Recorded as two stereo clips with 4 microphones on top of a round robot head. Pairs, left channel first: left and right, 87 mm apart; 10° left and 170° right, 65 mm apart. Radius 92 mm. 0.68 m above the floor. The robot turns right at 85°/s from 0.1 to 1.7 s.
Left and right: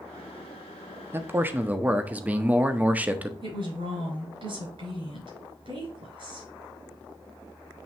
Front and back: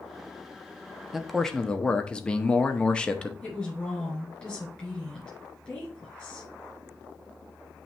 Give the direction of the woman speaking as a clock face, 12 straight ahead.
2 o'clock.